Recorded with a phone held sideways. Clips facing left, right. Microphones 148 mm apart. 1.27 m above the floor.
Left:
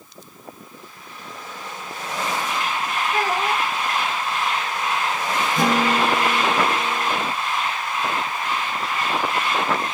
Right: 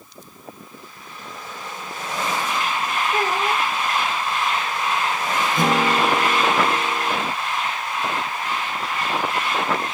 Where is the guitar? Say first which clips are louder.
Even; 45° left (ahead or behind), 1.7 m.